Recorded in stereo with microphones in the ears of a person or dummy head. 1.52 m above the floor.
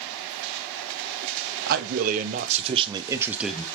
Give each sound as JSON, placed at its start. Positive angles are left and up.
{"t": 1.7, "sound": "a man speaking", "side_deg": -55, "distance_m": 1.5}